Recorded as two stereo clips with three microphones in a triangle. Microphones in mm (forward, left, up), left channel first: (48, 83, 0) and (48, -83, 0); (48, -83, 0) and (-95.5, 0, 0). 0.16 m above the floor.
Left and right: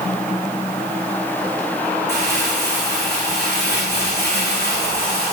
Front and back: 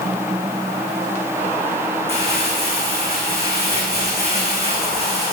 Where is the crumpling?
100° left, 9.5 m.